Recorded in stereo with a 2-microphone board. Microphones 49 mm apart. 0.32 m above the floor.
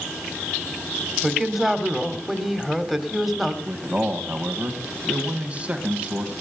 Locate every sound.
1.2 s a woman speaking: centre (ahead or behind), 1.6 m
3.6 s a man speaking: 25° right (ahead or behind), 1.7 m